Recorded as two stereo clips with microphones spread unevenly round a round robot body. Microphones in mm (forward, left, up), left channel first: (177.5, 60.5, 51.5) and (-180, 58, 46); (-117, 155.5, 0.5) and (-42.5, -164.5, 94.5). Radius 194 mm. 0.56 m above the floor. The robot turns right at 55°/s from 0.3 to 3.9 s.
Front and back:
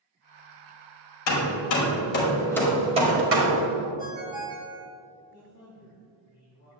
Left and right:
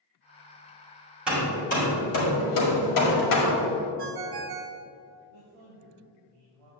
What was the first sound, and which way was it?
Hammering, 15° left.